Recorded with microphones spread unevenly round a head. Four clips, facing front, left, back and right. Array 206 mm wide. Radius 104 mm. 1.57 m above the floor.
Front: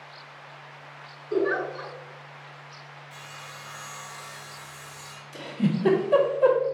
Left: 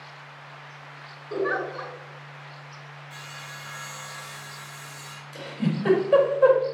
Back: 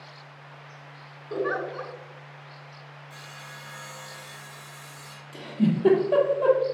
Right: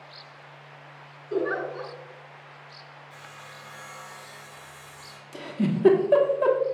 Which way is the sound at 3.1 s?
170° left.